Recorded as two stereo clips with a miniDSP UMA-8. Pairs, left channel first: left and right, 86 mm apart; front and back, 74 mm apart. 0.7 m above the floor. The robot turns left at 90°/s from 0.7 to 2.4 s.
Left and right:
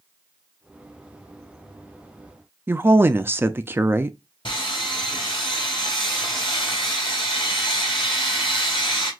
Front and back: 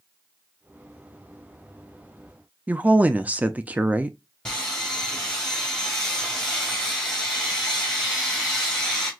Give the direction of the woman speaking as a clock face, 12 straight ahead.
4 o'clock.